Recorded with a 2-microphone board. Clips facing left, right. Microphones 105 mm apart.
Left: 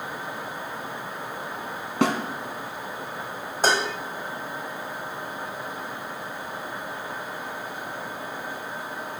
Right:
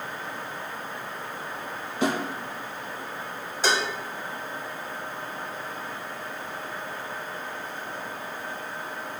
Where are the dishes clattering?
45° left (ahead or behind), 1.0 m.